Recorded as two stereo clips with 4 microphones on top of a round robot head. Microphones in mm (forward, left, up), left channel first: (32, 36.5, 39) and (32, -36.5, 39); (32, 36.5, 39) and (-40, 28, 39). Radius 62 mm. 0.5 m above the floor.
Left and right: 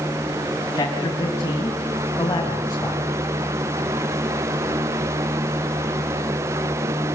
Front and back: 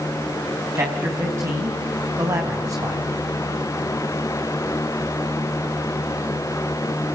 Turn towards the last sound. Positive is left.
turn(degrees=145)